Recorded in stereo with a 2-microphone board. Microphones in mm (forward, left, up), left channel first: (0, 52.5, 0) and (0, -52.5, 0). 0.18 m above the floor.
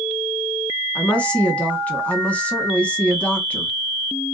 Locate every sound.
0.9 s a woman speaking: 15° left (ahead or behind), 1.5 m